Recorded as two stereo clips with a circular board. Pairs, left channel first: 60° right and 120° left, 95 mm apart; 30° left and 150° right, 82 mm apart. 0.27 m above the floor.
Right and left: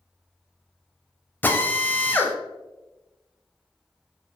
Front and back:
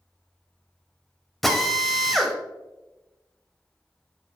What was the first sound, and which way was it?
A drill, 55° right.